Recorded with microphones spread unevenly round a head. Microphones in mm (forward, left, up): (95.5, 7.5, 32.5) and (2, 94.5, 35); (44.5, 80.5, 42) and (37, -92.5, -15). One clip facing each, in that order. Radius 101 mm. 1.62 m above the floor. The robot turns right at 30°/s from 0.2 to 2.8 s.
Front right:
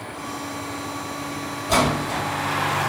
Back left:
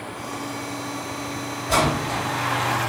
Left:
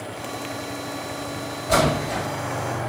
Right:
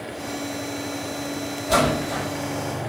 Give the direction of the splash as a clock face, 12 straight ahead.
12 o'clock.